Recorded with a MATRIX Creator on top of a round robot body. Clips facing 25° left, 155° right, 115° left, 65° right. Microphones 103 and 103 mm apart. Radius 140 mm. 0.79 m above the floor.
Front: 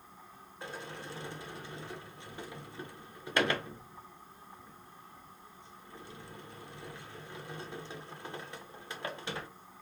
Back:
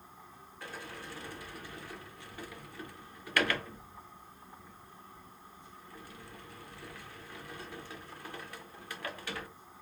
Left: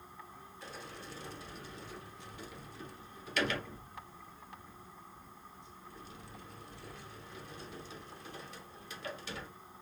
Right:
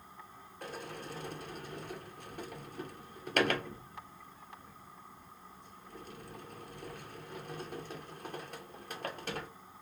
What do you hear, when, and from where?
0.6 s a sliding door: 40° right, 0.9 m